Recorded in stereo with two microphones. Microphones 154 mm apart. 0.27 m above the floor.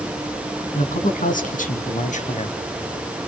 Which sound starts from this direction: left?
A man speaking, at 0.7 s.